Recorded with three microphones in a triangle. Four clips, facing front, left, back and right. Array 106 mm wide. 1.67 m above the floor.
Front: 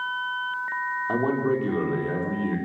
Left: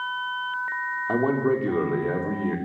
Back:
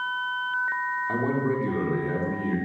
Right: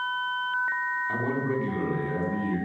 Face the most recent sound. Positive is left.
turn(degrees=80)